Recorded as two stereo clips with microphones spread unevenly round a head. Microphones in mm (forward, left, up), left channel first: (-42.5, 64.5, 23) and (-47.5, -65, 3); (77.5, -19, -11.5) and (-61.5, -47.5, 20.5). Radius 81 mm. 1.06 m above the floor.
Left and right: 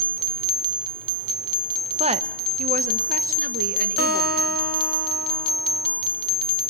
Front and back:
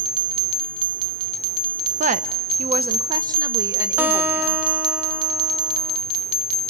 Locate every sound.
2.0 s a woman speaking: 130° right, 0.9 m; by 4.6 s 90° right, 2 m
4.0 s a guitar: 95° right, 2 m